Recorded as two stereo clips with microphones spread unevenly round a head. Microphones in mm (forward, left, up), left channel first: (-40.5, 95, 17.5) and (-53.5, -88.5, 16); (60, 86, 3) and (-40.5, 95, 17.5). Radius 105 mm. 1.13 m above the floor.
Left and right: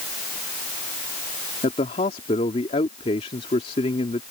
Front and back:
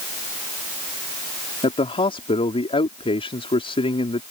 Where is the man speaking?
20° left.